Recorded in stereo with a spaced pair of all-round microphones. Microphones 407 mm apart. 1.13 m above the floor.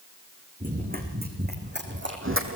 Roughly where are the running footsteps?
Centre.